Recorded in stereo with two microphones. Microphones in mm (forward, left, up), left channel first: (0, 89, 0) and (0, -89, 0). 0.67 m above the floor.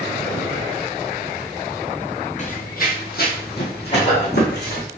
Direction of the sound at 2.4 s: 45° left (ahead or behind).